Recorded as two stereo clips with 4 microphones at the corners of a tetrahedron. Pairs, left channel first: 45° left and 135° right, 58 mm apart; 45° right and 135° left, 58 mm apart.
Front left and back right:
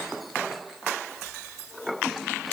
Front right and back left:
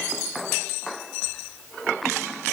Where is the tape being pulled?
No tape being pulled in this recording.